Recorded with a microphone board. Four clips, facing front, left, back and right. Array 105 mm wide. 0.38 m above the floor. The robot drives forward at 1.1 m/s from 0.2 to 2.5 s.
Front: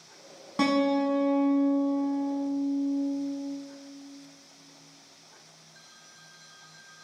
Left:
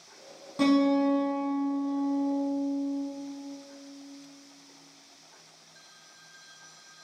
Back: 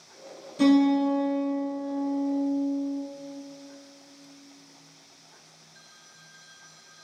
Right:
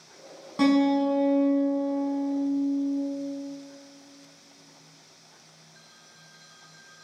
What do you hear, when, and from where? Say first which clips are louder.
0.6 s a guitar: right 2 dB, back 4 dB; 20° right, 1.9 m; by 3.0 s 125° right, 0.9 m